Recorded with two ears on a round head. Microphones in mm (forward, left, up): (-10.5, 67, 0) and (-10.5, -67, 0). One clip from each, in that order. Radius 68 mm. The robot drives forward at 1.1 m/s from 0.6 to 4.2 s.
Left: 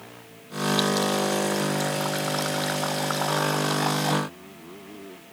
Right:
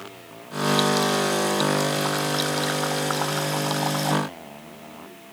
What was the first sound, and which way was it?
Only background noise.